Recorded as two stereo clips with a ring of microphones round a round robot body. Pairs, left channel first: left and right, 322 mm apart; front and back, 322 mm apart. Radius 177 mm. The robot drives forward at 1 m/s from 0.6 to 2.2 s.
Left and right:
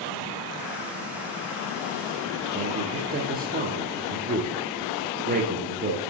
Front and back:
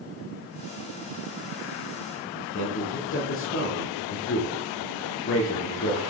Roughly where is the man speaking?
Ahead right.